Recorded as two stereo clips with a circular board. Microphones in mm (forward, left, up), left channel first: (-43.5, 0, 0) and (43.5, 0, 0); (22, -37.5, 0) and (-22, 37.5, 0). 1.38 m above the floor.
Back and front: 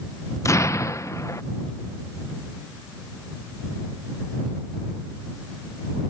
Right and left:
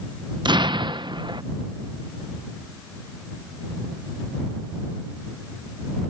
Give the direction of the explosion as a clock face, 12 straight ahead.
8 o'clock.